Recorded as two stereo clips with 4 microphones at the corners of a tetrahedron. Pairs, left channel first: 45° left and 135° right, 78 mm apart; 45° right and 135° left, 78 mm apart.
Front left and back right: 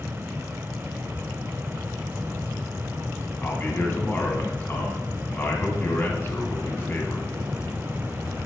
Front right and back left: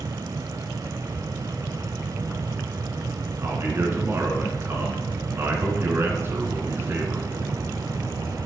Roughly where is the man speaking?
Left.